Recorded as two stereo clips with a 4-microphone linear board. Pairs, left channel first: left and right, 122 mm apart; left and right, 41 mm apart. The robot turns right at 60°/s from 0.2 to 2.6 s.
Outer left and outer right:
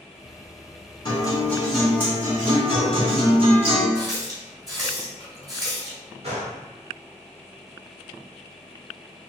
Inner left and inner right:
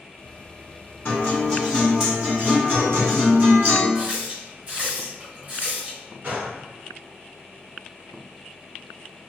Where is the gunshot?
55° right (ahead or behind), 1.5 m.